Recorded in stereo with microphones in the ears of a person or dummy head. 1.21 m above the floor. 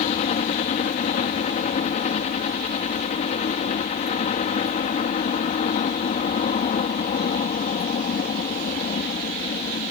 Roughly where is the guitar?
No guitar in this recording.